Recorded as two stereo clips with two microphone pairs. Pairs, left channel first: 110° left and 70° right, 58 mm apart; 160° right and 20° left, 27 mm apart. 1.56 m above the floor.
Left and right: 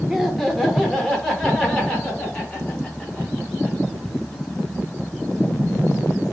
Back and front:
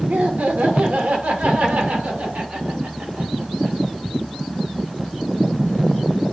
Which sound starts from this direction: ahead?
Laughter, at 0.1 s.